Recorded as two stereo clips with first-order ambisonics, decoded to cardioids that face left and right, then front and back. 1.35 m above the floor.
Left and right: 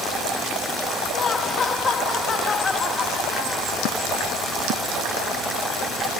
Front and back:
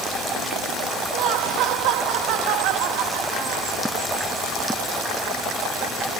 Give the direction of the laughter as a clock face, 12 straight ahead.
7 o'clock.